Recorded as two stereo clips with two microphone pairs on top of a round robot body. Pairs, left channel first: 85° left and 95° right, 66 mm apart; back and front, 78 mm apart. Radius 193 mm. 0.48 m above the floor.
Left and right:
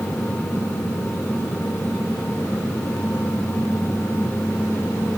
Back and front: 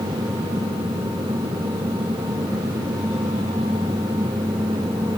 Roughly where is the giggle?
No giggle in this recording.